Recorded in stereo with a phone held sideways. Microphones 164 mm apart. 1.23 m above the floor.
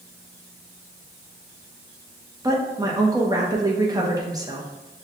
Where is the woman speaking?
20° right (ahead or behind), 0.9 m.